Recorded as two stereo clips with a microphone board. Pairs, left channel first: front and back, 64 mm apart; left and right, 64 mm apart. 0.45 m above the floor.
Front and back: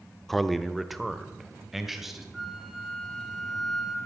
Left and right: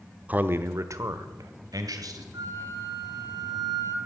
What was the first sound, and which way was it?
A man speaking, 80° right.